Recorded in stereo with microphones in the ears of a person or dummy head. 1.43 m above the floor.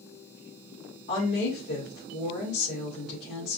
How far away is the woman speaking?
About 1.3 m.